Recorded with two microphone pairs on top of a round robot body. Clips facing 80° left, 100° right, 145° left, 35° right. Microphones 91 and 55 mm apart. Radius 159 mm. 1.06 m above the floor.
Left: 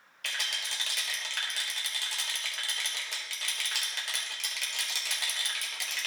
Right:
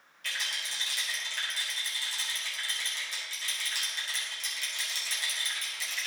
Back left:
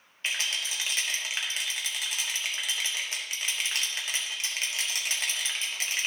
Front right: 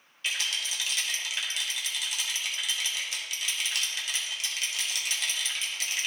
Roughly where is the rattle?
Left.